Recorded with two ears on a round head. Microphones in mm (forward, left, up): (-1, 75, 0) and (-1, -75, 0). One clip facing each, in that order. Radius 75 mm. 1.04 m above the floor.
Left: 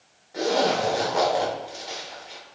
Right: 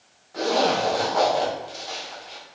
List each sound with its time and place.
0.3 s a zipper: 10° left (ahead or behind), 1.2 m